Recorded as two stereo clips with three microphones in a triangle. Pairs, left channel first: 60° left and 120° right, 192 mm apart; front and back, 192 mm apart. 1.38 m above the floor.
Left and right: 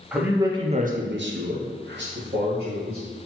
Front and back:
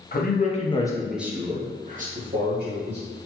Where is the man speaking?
35° right, 0.9 m; by 3.0 s 155° right, 1.5 m.